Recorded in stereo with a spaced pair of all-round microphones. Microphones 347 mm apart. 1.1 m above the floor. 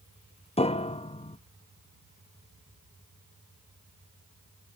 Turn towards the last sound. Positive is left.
turn(degrees=20)  # may be behind; listen again after turning